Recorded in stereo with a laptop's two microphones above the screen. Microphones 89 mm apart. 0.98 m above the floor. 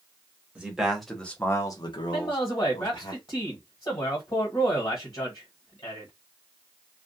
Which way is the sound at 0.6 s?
10° right (ahead or behind).